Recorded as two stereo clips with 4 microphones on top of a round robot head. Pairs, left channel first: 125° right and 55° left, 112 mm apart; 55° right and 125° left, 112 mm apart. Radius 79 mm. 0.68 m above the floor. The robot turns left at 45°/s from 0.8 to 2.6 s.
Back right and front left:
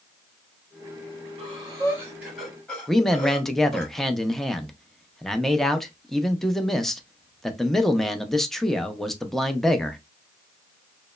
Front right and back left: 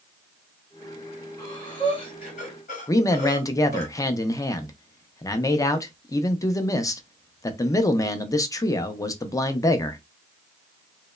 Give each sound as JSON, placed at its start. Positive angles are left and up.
{"t": 1.4, "sound": "breathing", "azimuth_deg": 10, "distance_m": 1.0}
{"t": 2.9, "sound": "a man speaking", "azimuth_deg": -40, "distance_m": 0.5}